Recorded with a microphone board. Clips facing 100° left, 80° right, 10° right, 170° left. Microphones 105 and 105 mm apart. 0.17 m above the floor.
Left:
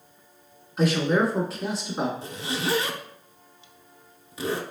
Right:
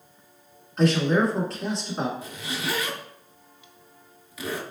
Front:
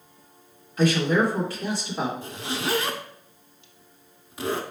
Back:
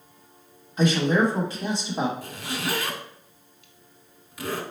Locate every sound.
0.8 s a man speaking: 175° left, 1.1 m
2.2 s a zipper: 45° left, 0.6 m